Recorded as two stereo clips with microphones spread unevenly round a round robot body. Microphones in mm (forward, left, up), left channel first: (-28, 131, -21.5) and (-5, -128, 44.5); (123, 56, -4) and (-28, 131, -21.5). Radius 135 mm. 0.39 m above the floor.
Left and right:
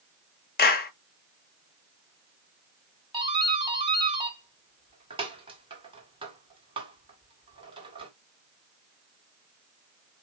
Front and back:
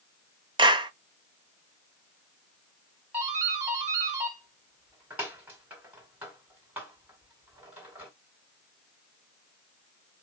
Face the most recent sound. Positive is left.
turn(degrees=-160)